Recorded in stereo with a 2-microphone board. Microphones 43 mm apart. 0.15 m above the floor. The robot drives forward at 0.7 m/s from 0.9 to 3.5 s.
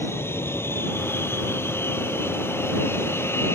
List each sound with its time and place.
0.0 s an aircraft: 65° left (ahead or behind)